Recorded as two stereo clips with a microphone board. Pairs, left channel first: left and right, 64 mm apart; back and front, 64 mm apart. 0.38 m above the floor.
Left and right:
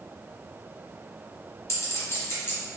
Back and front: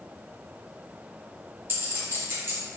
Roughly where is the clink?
Ahead left.